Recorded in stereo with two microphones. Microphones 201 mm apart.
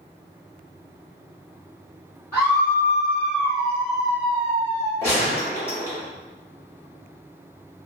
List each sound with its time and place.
2.3 s a scream: 10° left (ahead or behind), 1.4 m; by 4.9 s 10° right (ahead or behind), 1.6 m
5.0 s a gunshot: 15° left (ahead or behind), 1.2 m